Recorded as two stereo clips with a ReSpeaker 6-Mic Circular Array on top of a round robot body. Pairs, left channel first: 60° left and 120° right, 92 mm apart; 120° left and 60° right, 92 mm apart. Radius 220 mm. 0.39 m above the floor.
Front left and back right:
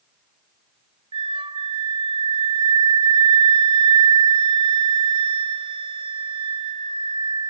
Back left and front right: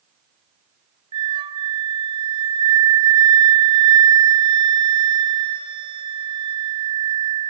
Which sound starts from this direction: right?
A flute, at 1.1 s.